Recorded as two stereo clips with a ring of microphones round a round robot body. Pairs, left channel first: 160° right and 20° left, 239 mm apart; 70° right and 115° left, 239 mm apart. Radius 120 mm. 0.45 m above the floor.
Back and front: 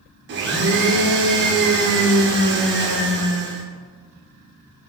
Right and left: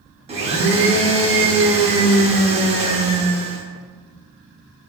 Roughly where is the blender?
Ahead left.